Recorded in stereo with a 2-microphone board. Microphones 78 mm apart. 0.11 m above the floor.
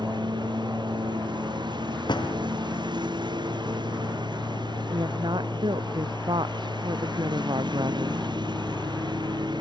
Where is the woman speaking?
75° right (ahead or behind).